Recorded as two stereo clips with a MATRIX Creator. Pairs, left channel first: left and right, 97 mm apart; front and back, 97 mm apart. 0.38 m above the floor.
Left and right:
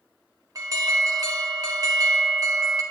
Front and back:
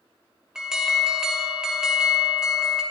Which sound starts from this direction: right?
An alarm, at 0.6 s.